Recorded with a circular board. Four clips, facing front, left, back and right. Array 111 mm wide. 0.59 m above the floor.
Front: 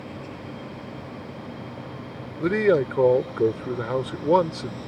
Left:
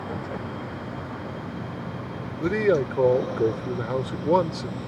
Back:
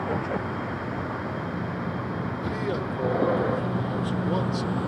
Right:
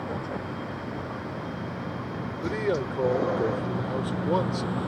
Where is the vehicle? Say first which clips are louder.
Even, back 9 dB; straight behind; by 4.9 s 145° right.